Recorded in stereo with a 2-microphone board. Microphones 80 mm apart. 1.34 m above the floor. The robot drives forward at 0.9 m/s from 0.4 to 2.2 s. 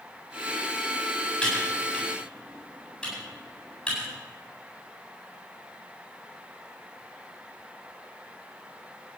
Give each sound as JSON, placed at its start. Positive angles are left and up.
{"t": 1.4, "sound": "typing on a keyboard", "side_deg": 10, "distance_m": 8.0}